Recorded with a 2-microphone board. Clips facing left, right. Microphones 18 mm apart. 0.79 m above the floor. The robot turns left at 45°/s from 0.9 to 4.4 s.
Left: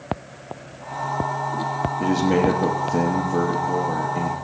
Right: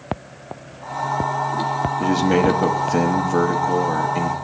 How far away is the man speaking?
About 1.3 m.